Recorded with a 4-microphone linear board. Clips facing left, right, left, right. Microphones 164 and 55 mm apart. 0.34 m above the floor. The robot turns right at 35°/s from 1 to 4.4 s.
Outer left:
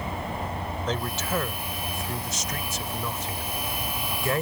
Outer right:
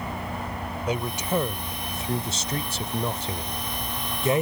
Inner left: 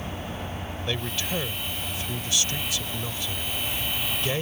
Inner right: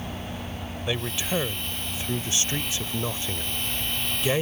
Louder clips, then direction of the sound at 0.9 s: Outer right 3 dB, inner right 2 dB; 160° right.